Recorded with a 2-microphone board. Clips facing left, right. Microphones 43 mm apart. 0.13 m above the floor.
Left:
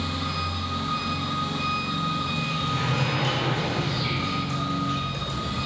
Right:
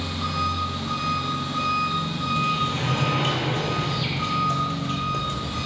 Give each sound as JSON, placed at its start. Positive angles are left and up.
{"t": 0.0, "sound": "an engine running", "side_deg": -75, "distance_m": 1.5}
{"t": 2.4, "sound": "a sliding door", "side_deg": -50, "distance_m": 0.8}